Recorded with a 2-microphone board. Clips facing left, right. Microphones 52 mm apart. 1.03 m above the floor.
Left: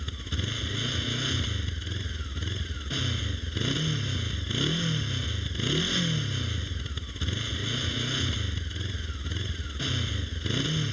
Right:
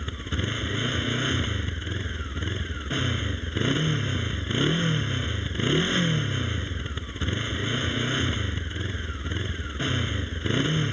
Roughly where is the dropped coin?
I don't hear a dropped coin.